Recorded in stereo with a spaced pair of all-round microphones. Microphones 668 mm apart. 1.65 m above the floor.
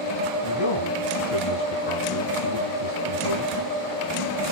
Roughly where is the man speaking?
Left.